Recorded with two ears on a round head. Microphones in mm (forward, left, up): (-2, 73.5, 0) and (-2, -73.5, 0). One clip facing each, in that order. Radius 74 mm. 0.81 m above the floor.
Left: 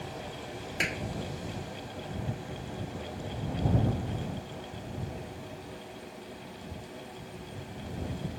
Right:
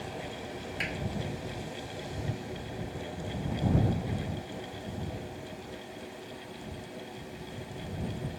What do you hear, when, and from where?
0.8 s a clap: 60° left (ahead or behind)